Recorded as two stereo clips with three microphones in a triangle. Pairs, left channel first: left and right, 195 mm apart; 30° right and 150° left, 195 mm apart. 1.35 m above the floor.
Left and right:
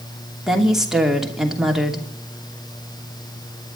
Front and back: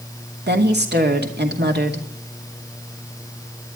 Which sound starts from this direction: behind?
A woman speaking, at 0.5 s.